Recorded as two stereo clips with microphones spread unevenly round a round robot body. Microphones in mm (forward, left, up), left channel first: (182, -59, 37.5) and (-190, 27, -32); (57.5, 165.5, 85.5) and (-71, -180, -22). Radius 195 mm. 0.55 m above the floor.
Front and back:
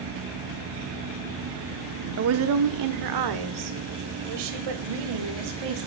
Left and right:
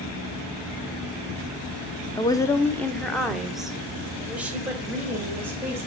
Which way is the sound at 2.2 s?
165° left.